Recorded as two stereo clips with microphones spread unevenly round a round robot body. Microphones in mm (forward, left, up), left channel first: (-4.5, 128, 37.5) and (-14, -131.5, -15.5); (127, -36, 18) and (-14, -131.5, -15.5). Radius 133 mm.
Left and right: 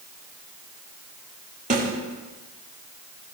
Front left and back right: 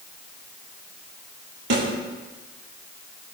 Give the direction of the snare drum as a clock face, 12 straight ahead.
5 o'clock.